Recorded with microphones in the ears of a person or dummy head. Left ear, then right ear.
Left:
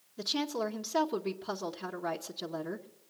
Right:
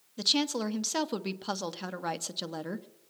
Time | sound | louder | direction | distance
0.2 | a woman speaking | right 5 dB | 30° right (ahead or behind) | 0.8 m